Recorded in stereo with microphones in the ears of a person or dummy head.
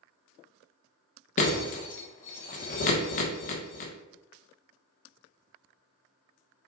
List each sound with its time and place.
1.4 s breaking glass: 40° left (ahead or behind), 1.1 m